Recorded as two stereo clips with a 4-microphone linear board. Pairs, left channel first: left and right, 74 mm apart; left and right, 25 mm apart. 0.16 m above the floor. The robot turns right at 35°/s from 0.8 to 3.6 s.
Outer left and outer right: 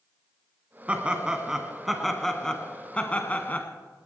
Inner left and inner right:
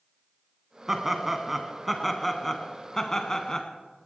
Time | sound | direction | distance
0.9 | laughter | 15° right (ahead or behind) | 1.4 m